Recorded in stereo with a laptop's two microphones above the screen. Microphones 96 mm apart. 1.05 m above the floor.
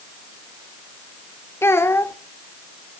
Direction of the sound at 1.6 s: 25° left (ahead or behind).